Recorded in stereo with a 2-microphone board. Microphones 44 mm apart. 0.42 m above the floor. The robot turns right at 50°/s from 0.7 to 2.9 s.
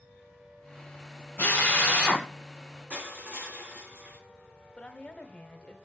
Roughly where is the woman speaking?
Left.